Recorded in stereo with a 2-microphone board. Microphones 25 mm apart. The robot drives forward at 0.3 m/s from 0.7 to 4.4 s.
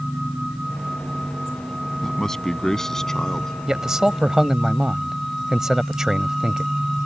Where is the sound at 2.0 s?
15° left (ahead or behind).